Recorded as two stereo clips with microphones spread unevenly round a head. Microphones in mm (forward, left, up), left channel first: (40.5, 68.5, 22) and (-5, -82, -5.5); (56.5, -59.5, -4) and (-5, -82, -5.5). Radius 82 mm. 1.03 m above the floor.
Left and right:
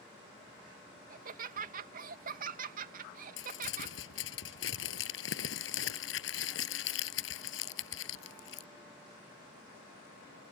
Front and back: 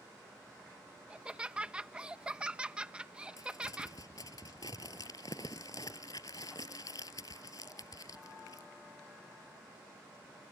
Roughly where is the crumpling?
Left.